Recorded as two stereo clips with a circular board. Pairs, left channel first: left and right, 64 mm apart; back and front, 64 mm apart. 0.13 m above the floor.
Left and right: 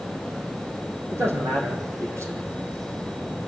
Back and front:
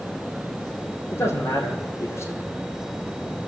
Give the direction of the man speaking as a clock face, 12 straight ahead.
4 o'clock.